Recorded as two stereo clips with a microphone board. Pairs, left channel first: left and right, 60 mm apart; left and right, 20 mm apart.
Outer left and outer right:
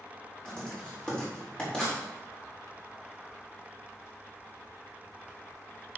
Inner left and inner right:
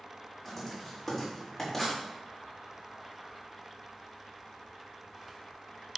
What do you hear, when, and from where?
0.5 s writing: 10° left (ahead or behind), 4 m